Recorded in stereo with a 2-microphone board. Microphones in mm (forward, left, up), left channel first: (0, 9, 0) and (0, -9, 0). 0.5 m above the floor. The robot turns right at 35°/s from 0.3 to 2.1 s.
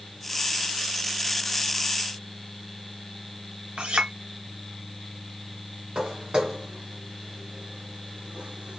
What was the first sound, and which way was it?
A clink, 70° right (ahead or behind).